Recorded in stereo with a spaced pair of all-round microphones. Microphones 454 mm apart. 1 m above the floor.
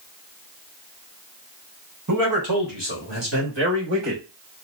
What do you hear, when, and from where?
2.1 s a man speaking: 40° right (ahead or behind), 1.3 m; by 4.2 s 65° right (ahead or behind), 2.5 m